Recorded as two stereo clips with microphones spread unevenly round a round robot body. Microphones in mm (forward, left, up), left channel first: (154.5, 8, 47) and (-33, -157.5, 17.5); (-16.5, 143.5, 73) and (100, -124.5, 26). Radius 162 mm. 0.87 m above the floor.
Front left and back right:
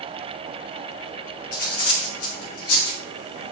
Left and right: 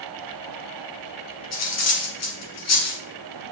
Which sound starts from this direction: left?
Cutlery clinking, at 1.5 s.